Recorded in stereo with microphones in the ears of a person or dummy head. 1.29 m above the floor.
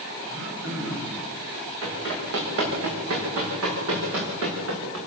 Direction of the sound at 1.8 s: 70° right (ahead or behind).